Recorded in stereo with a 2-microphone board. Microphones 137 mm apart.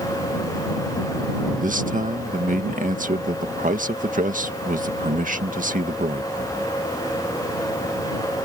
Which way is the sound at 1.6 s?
75° right (ahead or behind).